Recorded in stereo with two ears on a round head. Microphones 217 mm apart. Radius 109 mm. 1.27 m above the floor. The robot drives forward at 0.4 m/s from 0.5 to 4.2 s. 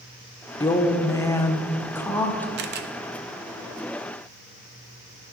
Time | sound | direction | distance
0.6 | a woman speaking | 15° left (ahead or behind) | 0.7 m
2.6 | a camera shutter | 45° right (ahead or behind) | 0.6 m